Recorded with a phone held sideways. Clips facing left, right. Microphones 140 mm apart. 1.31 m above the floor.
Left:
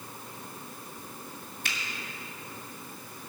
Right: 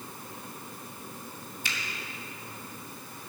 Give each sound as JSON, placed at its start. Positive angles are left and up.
{"t": 1.6, "sound": "a finger snap", "side_deg": 60, "distance_m": 2.5}